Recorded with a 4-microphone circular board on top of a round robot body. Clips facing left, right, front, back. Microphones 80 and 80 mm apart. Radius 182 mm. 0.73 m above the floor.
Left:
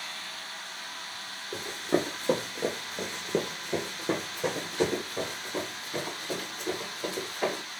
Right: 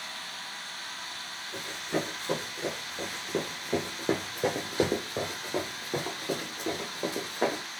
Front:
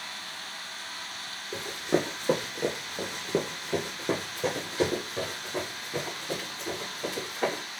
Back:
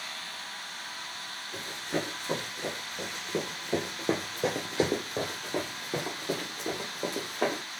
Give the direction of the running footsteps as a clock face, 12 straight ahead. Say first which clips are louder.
Left 4 dB, front 6 dB; 11 o'clock.